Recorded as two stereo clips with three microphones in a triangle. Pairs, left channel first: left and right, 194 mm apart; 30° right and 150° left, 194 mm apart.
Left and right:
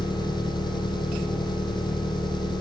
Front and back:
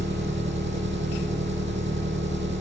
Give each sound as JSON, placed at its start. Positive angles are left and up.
{"t": 0.0, "sound": "an engine running", "azimuth_deg": 155, "distance_m": 2.0}